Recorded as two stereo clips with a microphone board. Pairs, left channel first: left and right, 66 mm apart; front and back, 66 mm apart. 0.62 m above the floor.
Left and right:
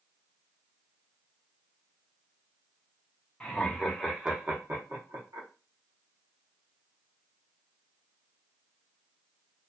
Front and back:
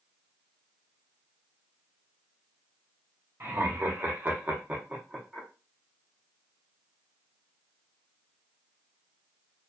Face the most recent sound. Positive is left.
turn(degrees=-95)